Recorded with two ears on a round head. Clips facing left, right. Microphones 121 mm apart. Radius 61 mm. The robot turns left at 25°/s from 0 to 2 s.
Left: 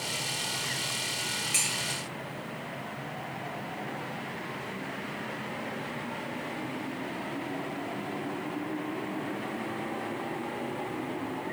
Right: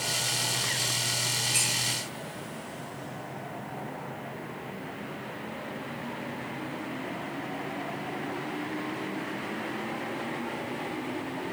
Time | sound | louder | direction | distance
1.5 | dishes clattering | right 1 dB | 65° left (ahead or behind) | 9 m